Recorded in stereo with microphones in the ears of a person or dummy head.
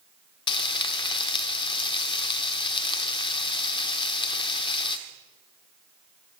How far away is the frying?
About 1.0 m.